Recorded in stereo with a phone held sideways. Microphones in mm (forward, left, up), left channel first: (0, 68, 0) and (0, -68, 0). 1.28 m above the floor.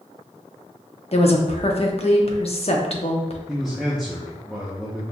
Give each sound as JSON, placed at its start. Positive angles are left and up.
{"t": 1.1, "sound": "a woman speaking", "side_deg": 45, "distance_m": 0.7}
{"t": 3.5, "sound": "a man speaking", "side_deg": 0, "distance_m": 0.7}